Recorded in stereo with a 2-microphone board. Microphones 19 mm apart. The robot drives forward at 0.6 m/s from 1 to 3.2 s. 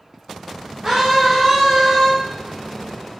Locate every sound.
0.8 s a scream: 35° right (ahead or behind), 4 m; by 2.1 s 30° right (ahead or behind), 4.5 m